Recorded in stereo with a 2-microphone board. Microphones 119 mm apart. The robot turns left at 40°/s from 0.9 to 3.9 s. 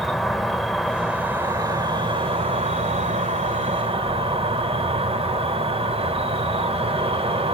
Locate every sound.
0.0 s an insect: straight ahead, 1.0 m; by 7.5 s 120° right, 1.0 m